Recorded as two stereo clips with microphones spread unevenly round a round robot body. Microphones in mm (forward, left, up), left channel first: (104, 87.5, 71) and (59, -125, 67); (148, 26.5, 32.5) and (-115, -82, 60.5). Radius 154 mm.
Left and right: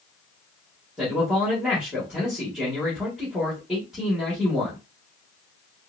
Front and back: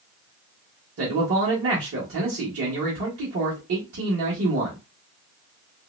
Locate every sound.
1.0 s a man speaking: 175° left, 1.4 m